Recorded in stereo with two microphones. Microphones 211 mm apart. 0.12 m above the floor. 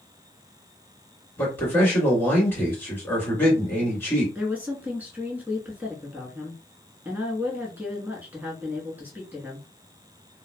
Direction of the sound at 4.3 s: 10° right (ahead or behind).